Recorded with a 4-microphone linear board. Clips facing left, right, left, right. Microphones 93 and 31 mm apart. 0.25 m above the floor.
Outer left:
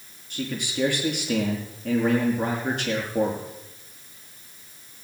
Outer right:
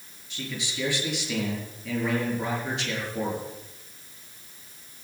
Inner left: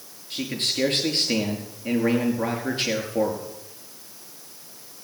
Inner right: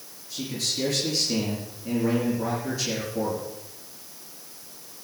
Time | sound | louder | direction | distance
0.3 | a man speaking | outer left 6 dB, inner left 3 dB | 50° left (ahead or behind) | 5 m